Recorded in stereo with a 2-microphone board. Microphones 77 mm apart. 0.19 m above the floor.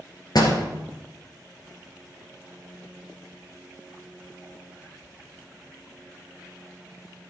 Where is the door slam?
60° left (ahead or behind), 2.5 m.